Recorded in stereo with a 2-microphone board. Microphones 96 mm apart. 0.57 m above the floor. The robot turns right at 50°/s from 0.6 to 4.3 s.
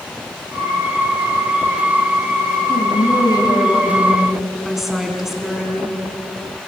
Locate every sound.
2.7 s a woman speaking: 100° left, 4.5 m; by 6.0 s straight behind, 4.5 m